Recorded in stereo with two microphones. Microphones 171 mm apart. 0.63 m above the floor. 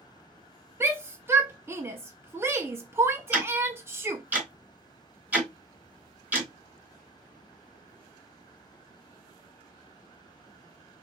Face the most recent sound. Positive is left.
turn(degrees=-10)  # may be behind; listen again after turning